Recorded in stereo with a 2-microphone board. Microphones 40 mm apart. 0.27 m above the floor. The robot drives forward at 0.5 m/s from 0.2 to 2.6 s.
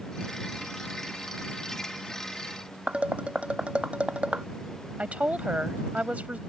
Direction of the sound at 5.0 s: 35° right (ahead or behind).